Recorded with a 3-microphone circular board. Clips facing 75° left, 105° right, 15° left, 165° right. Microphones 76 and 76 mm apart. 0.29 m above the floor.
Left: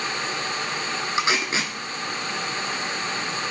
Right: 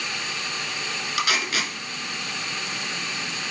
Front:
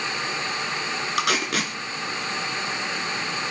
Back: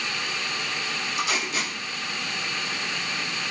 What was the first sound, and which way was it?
Tape being pulled, 10° left.